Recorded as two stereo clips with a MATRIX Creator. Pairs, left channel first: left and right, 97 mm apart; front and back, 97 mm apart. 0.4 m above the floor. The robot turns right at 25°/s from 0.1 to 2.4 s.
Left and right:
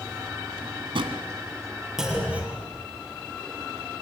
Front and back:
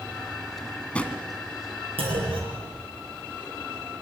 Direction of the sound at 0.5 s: 85° right.